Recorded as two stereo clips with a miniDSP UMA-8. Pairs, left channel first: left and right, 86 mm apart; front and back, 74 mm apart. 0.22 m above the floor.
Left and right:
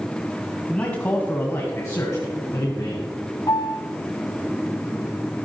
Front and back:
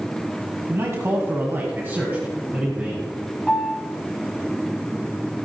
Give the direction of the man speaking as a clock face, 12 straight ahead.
7 o'clock.